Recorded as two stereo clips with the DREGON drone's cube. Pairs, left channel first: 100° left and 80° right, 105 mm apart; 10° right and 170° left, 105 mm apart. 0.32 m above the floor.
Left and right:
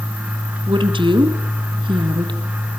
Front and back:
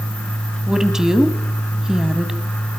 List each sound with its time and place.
0.7 s a woman speaking: 105° right, 2.5 m